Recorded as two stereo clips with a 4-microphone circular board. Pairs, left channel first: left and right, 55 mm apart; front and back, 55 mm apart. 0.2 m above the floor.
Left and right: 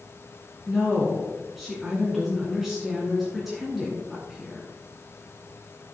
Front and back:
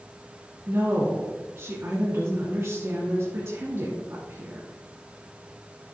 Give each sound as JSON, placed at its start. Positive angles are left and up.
{"t": 0.7, "sound": "a woman speaking", "azimuth_deg": -175, "distance_m": 2.0}